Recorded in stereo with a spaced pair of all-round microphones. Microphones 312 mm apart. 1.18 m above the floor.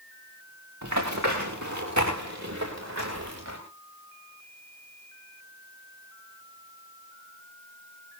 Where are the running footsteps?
65° right (ahead or behind), 8 m; by 3.6 s 55° right (ahead or behind), 7.5 m.